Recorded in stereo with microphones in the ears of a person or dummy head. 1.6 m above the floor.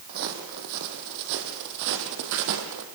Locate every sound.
0.1 s footsteps: 50° right (ahead or behind), 4 m; by 2.9 s 65° right (ahead or behind), 3.5 m